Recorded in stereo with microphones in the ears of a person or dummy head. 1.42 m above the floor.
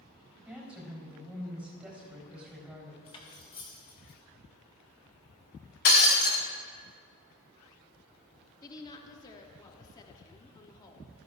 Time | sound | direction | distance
0.5 | a woman speaking | centre (ahead or behind) | 3.5 m
3.1 | cutlery clinking | 25° left (ahead or behind) | 1.4 m
5.8 | breaking glass | 50° left (ahead or behind) | 1.6 m
8.6 | a woman speaking | 20° left (ahead or behind) | 0.9 m